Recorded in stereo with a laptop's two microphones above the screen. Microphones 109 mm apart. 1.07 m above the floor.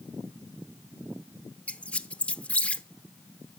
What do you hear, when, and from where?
1.7 s a squeak: 15° left (ahead or behind), 0.7 m